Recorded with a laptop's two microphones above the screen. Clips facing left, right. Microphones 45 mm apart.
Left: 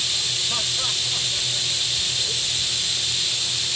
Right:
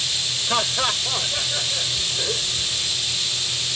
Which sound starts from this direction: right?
Laughter, at 0.5 s.